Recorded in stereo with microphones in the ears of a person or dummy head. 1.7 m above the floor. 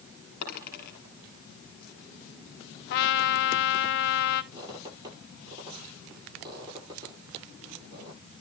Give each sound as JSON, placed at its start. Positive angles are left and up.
{"t": 0.4, "sound": "a dropped coin", "side_deg": 60, "distance_m": 4.5}
{"t": 2.9, "sound": "a trumpet", "side_deg": 65, "distance_m": 1.1}
{"t": 4.5, "sound": "a squeak", "side_deg": -25, "distance_m": 9.0}